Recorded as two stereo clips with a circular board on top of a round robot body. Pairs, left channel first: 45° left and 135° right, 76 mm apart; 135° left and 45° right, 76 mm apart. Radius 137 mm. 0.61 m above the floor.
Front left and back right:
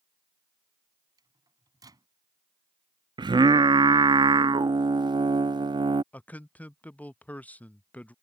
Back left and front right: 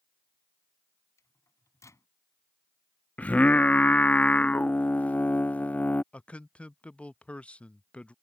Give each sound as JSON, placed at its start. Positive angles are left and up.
{"t": 1.2, "sound": "a microwave", "azimuth_deg": -175}
{"t": 3.2, "sound": "singing", "azimuth_deg": -150}
{"t": 6.1, "sound": "a man speaking", "azimuth_deg": 85}